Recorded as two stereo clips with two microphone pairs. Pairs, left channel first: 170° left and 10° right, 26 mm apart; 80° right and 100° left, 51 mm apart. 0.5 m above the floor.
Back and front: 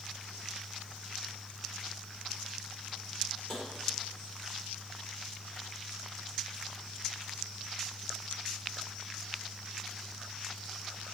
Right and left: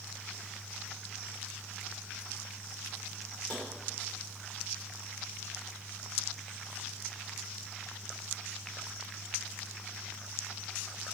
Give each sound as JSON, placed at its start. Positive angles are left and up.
{"t": 3.5, "sound": "tapping", "azimuth_deg": -135, "distance_m": 1.8}